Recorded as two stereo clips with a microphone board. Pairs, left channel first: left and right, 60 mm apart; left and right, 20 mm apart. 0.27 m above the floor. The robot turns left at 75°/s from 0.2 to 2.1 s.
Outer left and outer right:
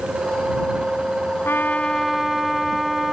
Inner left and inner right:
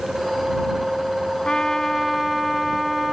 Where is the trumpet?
50° left; by 3.1 s straight ahead.